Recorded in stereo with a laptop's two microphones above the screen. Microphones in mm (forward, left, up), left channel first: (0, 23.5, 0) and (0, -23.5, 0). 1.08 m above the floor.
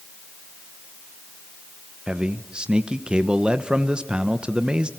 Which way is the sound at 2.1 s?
20° right (ahead or behind).